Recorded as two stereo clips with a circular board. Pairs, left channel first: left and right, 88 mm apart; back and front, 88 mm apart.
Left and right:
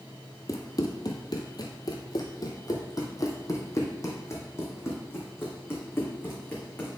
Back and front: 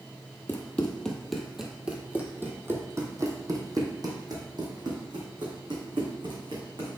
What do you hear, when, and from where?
0.5 s running footsteps: 120° left, 1.3 m; by 7.0 s 25° left, 3.5 m